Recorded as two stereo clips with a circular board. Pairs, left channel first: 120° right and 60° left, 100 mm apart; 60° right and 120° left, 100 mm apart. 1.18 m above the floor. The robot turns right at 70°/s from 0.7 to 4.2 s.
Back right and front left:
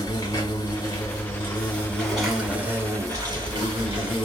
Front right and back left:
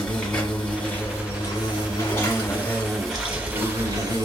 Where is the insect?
130° right, 1.3 m; by 4.2 s 115° left, 1.3 m.